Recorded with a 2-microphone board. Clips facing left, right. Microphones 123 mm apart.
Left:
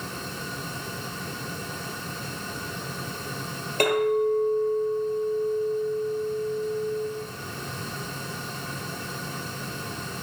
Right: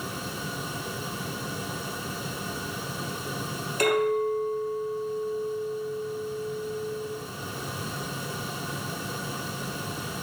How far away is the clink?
About 1.7 m.